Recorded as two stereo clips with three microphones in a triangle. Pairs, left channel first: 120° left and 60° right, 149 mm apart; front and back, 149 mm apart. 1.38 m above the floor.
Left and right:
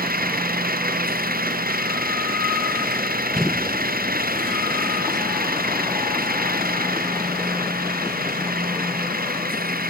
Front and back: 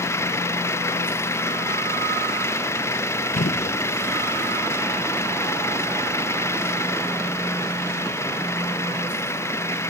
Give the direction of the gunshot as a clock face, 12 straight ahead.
11 o'clock.